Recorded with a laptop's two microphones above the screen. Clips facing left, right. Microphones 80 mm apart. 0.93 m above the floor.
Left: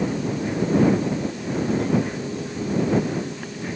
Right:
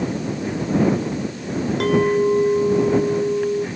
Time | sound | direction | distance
1.8 | a clink | 90° right | ?